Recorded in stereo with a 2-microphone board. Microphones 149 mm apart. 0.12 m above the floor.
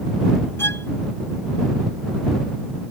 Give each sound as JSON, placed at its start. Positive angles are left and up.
{"t": 0.6, "sound": "a violin", "side_deg": 15}